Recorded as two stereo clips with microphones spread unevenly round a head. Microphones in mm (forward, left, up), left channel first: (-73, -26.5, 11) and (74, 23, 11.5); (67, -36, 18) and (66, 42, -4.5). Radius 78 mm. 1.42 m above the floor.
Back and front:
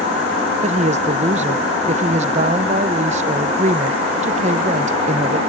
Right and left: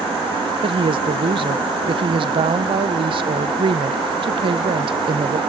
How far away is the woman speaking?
About 0.8 m.